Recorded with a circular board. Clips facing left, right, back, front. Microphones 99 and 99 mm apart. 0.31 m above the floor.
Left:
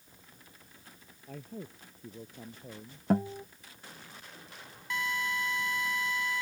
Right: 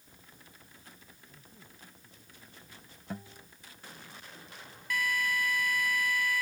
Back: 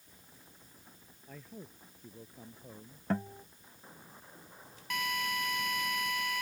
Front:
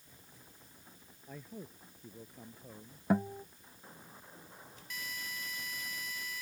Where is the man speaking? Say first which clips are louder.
Left 18 dB, front 1 dB; 80° left; by 3.0 s 95° left.